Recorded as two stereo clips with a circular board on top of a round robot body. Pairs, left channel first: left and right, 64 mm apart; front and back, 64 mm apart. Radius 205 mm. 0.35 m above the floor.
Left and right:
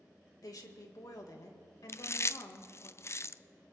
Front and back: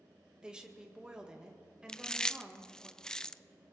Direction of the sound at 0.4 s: 105° left.